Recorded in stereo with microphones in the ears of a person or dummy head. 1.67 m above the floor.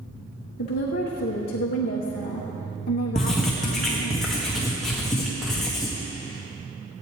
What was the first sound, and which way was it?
A woman speaking, 45° left (ahead or behind).